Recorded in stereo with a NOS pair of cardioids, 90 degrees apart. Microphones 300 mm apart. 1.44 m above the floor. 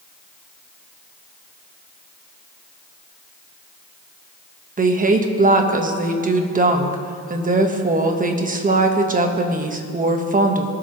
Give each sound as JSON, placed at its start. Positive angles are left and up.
{"t": 4.8, "sound": "a woman speaking", "azimuth_deg": -25, "distance_m": 1.5}